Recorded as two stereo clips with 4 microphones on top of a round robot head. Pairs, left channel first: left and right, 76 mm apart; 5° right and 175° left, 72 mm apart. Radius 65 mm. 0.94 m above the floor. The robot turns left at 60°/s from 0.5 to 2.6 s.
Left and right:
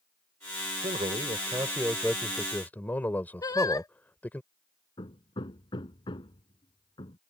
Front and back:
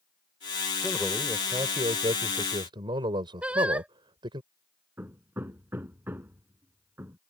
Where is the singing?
105° left.